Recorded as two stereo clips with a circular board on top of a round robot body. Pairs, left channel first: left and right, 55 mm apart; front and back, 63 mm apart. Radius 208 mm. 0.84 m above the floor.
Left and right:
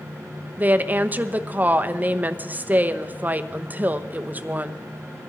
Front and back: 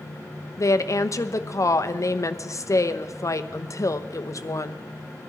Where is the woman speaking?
35° right, 1.0 m.